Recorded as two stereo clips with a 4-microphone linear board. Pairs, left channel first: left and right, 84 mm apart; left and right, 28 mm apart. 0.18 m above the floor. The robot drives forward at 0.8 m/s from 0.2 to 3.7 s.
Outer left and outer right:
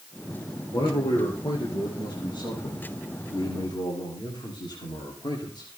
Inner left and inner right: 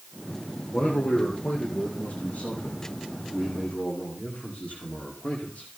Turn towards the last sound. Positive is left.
turn(degrees=60)  # may be behind; listen again after turning